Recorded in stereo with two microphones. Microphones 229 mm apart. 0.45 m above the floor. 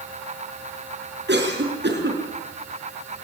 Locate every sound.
1.3 s a cough: 50° right (ahead or behind), 5 m